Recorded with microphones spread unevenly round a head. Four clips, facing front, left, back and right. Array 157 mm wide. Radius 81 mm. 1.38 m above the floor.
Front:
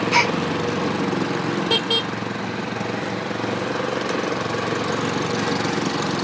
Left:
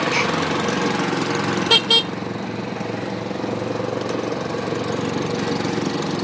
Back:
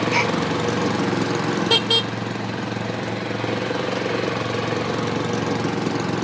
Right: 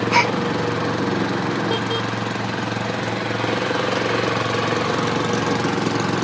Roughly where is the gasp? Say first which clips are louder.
Right 3 dB, front 2 dB; ahead right.